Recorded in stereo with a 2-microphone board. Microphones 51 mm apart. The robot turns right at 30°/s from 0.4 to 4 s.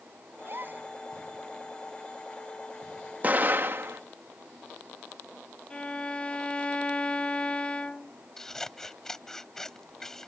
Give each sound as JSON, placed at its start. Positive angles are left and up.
{"t": 0.4, "sound": "a gasp", "side_deg": -45}
{"t": 3.2, "sound": "an explosion", "side_deg": -35}
{"t": 5.7, "sound": "a violin", "side_deg": 20}
{"t": 8.4, "sound": "scissors", "side_deg": 10}